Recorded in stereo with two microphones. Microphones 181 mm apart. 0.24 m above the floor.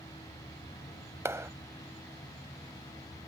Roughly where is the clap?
Centre.